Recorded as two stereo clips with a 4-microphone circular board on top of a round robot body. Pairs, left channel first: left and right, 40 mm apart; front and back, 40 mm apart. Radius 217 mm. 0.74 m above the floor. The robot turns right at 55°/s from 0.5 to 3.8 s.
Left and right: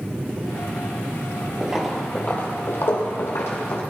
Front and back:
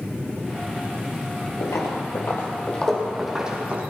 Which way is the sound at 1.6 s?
20° right.